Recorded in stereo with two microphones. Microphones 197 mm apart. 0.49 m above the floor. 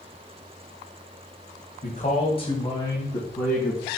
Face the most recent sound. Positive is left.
turn(degrees=5)  # may be behind; listen again after turning